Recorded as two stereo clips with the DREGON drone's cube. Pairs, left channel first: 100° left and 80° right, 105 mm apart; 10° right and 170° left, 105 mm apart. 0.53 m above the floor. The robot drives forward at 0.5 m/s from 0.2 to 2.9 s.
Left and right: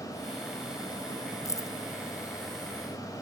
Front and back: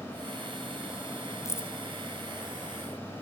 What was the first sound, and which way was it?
Keys jangling, 45° left.